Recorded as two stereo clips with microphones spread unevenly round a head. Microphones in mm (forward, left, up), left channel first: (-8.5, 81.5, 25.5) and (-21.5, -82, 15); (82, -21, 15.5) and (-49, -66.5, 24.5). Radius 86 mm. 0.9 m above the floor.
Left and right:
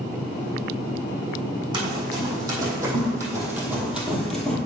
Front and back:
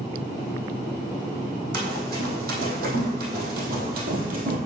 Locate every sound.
1.7 s running footsteps: 160° right, 3 m; by 4.6 s 165° left, 1.6 m